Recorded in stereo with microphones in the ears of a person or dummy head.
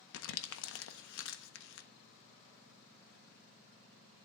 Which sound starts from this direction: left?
Crumpling, at 0.1 s.